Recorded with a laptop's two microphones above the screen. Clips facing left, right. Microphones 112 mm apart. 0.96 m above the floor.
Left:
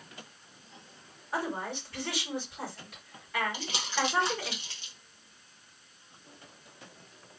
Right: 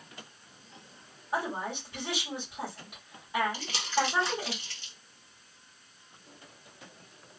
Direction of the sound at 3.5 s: 20° left (ahead or behind).